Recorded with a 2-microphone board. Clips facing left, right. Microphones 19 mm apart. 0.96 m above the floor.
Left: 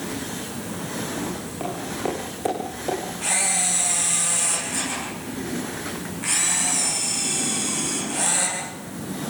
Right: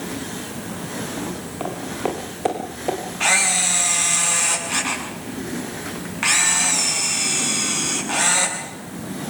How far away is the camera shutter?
About 7 m.